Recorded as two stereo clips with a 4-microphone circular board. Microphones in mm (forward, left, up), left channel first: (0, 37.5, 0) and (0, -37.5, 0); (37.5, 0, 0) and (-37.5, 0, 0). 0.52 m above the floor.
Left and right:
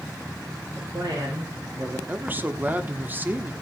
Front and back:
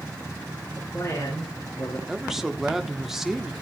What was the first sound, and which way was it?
A man speaking, 45° right.